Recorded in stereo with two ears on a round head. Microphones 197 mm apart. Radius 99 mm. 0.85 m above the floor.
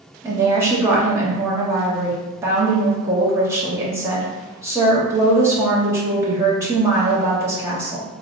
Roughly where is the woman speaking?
Centre.